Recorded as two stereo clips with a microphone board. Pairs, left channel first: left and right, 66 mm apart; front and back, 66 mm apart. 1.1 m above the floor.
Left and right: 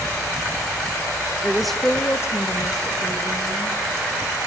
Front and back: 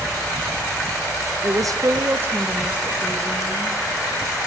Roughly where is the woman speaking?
Behind.